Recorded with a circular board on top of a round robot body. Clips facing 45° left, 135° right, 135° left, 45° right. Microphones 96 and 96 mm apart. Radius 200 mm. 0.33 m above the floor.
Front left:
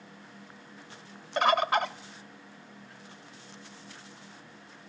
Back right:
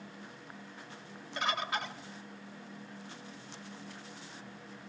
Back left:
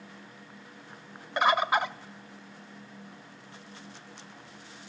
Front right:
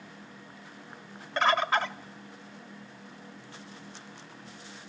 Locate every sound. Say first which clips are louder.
1.4 s a bird: front left 10 dB, back left 1 dB; 60° left, 0.5 m